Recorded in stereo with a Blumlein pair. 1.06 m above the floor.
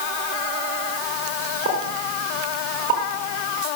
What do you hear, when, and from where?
1.6 s a pop: 60° right, 5 m